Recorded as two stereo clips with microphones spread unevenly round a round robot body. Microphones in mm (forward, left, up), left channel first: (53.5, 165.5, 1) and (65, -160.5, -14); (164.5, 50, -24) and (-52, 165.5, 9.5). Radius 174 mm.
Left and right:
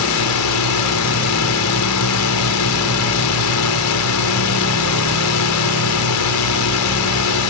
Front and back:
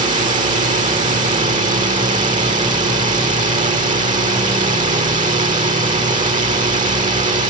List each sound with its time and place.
0.0 s a drone: 95° left